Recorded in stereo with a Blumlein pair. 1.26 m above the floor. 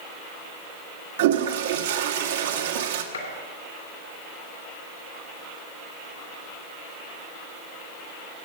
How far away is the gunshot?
About 2.5 m.